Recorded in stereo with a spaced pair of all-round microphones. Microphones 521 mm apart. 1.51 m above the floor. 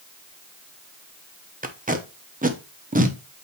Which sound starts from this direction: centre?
Tape being pulled, at 1.6 s.